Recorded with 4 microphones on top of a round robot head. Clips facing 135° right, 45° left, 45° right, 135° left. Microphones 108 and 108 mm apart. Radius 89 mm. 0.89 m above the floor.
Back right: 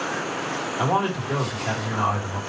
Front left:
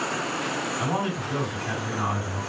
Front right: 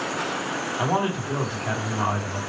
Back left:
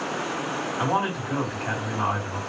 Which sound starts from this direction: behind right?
A man speaking, at 0.8 s.